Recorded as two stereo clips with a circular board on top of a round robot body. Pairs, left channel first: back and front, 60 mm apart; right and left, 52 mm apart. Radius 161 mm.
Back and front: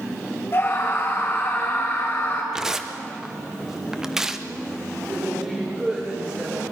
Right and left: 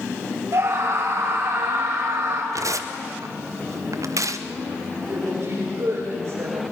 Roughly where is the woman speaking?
Left.